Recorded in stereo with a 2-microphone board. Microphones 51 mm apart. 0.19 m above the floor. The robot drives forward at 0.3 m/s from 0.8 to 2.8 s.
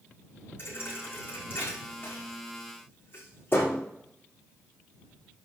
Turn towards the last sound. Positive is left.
turn(degrees=45)  # may be behind; listen again after turning